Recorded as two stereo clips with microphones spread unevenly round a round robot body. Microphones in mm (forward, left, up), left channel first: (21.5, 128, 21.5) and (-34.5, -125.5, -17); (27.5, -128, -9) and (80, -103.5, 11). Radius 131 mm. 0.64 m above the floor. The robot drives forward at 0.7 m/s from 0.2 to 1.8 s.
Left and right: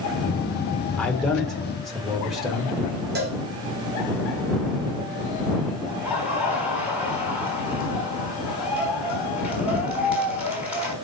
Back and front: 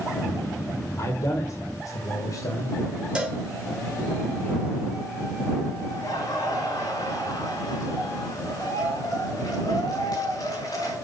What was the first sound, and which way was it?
A man speaking, 165° left.